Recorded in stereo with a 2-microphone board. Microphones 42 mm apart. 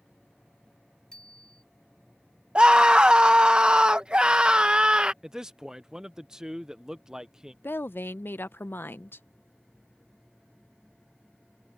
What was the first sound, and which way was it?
A bicycle bell, 20° left (ahead or behind).